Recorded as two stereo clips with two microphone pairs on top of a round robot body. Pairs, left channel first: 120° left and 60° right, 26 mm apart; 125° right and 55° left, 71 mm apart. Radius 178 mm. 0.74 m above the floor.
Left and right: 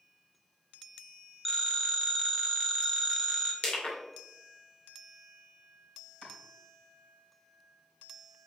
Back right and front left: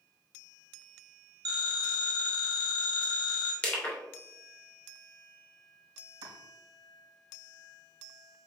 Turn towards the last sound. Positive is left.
turn(degrees=55)